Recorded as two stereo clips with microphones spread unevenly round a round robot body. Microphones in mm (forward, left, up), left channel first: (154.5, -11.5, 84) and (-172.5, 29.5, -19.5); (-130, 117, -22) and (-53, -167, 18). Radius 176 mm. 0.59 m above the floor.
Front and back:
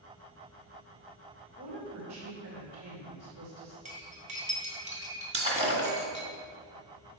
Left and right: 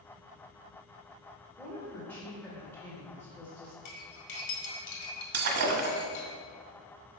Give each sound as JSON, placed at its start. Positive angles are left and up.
{"t": 1.6, "sound": "a woman speaking", "azimuth_deg": -175, "distance_m": 1.9}
{"t": 3.9, "sound": "cutlery clinking", "azimuth_deg": 105, "distance_m": 2.0}
{"t": 5.3, "sound": "breaking glass", "azimuth_deg": -110, "distance_m": 1.3}